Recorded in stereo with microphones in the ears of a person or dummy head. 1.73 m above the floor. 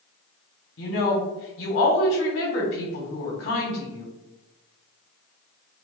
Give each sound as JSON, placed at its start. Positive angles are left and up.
{"t": 0.8, "sound": "a woman speaking", "side_deg": 60, "distance_m": 1.3}